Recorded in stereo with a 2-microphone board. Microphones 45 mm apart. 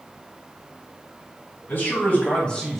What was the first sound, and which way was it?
A man speaking, 55° left (ahead or behind).